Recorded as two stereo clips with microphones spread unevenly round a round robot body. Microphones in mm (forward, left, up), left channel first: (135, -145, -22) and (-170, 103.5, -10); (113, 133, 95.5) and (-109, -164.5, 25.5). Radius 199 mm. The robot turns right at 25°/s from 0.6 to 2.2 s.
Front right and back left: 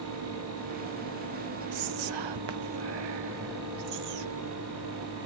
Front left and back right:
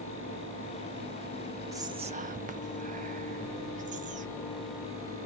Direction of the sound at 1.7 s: 155° left.